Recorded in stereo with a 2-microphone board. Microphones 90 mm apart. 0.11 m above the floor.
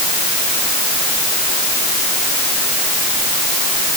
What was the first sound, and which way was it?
Only background noise.